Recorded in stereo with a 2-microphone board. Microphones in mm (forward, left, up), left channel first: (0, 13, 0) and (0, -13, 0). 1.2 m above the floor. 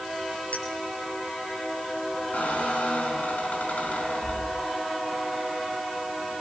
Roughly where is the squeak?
Left.